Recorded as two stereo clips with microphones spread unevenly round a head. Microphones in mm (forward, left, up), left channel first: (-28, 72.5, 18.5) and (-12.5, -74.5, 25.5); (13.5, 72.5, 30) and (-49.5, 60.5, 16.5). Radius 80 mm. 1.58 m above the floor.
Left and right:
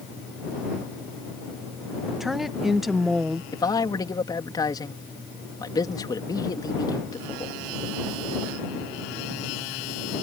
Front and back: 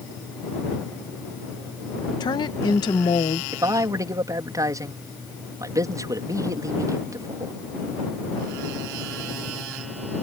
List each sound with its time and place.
2.2 s a woman speaking: 5° left
3.5 s a man speaking: 160° left